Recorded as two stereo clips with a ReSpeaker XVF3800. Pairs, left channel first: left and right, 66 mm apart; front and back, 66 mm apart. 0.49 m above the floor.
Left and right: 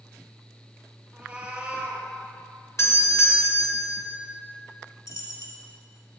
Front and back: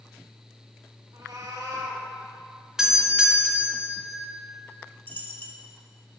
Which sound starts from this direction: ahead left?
A dropped coin, at 5.1 s.